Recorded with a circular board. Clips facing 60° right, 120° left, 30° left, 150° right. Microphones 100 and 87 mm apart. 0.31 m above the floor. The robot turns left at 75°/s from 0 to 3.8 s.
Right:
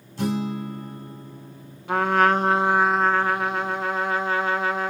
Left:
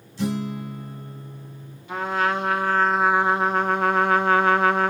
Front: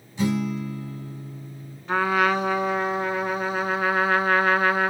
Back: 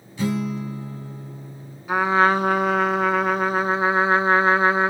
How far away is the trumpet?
About 0.5 m.